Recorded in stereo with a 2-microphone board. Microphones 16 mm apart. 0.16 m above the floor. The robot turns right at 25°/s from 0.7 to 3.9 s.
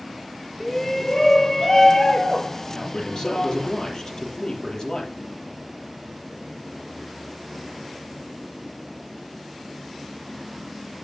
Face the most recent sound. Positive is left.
turn(degrees=35)  # may be behind; listen again after turning